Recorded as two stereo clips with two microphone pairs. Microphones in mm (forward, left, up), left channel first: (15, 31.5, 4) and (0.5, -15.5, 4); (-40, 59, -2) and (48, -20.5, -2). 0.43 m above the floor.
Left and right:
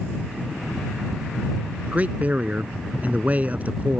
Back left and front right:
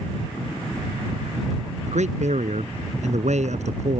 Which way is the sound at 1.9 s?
45° right.